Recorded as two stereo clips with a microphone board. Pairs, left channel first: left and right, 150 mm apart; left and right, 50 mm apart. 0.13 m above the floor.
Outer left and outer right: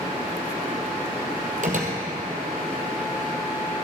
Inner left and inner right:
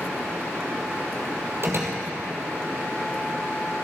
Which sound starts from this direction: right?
A door slam, at 1.6 s.